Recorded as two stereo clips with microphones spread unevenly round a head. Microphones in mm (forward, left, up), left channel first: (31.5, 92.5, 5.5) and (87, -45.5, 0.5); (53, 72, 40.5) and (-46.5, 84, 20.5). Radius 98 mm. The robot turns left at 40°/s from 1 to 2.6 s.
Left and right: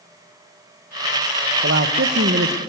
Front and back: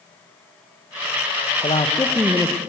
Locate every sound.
1.6 s a man speaking: 60° right, 1.2 m; by 2.6 s 100° right, 1.2 m